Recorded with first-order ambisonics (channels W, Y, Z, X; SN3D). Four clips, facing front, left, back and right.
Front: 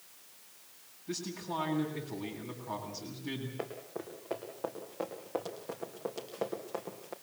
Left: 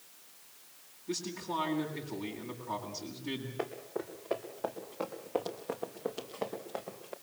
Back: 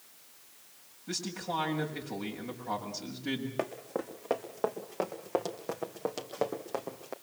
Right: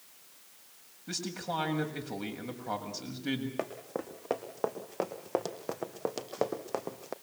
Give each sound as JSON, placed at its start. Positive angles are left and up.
{"t": 1.1, "sound": "a man speaking", "azimuth_deg": -120, "distance_m": 7.0}
{"t": 3.6, "sound": "running footsteps", "azimuth_deg": -140, "distance_m": 3.5}